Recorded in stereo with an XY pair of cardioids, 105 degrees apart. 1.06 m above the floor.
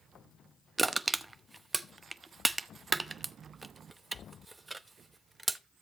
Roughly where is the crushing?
Ahead right.